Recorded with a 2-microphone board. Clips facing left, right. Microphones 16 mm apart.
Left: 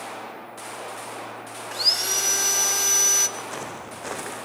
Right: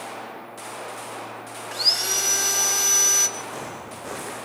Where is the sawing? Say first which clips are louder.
Right 1 dB; 10° right (ahead or behind), 0.7 m.